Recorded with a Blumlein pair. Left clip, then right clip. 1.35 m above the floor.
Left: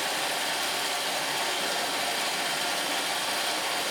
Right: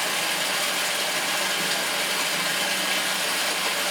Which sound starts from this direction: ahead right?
Running water, at 0.0 s.